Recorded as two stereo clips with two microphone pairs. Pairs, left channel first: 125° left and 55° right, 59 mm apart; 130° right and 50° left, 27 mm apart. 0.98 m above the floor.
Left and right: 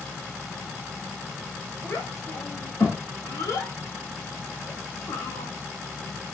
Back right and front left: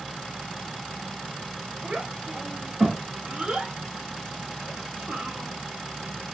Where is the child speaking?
95° left, 1.1 m.